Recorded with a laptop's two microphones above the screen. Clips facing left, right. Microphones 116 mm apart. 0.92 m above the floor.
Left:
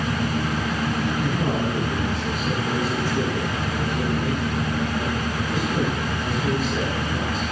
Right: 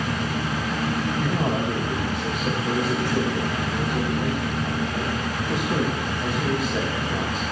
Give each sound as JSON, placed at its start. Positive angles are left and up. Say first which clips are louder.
{"t": 1.2, "sound": "a man speaking", "louder": "even", "side_deg": -65, "distance_m": 5.0}